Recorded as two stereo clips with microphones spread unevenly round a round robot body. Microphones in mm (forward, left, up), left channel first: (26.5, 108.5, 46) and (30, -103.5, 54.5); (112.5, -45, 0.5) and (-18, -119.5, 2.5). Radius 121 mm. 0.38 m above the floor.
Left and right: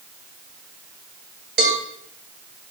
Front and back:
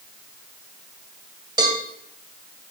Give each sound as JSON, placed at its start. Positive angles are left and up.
{"t": 1.6, "sound": "a cowbell", "azimuth_deg": -100, "distance_m": 2.0}